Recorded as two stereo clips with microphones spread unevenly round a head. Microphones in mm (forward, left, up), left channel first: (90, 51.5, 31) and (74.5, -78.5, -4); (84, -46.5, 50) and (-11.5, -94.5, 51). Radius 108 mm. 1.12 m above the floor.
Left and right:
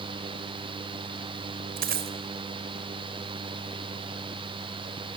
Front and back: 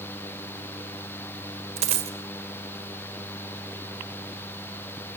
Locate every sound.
1.8 s a dropped coin: 150° right, 1.4 m